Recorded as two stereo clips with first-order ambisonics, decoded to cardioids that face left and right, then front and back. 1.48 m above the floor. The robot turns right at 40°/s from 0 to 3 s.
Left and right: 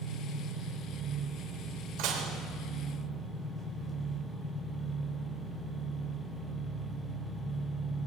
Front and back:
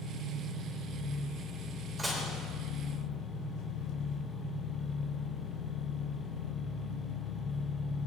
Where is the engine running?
115° right, 2 m; by 8.1 s 5° left, 2 m.